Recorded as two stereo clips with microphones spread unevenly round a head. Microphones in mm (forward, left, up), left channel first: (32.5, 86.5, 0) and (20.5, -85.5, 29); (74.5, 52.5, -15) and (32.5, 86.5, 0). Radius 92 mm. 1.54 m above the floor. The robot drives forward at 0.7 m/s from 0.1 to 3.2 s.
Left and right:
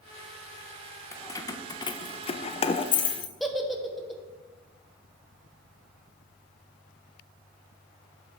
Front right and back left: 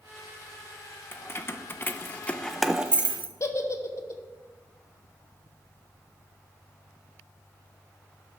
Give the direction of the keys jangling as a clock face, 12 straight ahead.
12 o'clock.